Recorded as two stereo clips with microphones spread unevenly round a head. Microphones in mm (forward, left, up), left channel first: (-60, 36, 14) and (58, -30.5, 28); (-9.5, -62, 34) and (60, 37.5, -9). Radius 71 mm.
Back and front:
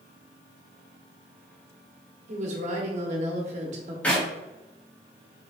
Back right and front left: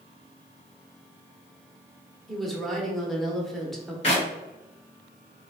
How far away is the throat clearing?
I don't hear throat clearing.